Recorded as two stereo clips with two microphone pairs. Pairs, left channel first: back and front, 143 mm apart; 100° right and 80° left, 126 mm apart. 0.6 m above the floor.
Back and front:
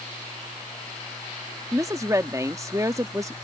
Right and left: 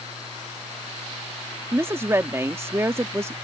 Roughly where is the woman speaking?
Ahead left.